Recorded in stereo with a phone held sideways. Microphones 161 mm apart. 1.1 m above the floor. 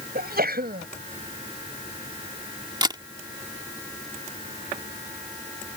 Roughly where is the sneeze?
Right.